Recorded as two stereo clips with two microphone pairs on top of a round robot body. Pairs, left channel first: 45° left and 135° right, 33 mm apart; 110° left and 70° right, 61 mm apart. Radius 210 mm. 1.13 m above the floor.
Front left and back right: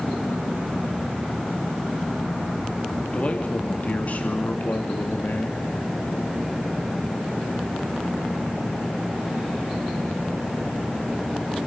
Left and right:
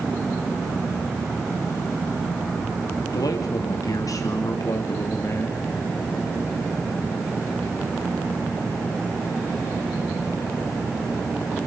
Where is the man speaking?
95° left, 3 m; by 5.7 s 60° left, 3 m.